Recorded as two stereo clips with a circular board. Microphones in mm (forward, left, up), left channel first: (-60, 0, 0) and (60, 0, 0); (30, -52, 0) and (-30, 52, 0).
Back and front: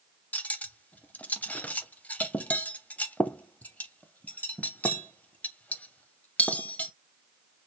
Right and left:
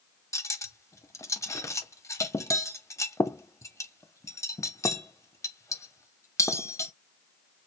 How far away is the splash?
I don't hear a splash.